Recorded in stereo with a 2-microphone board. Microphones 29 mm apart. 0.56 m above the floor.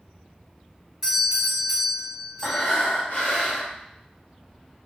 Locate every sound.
1.0 s a doorbell: 15° right (ahead or behind), 1.8 m
2.4 s breathing: 75° left (ahead or behind), 0.8 m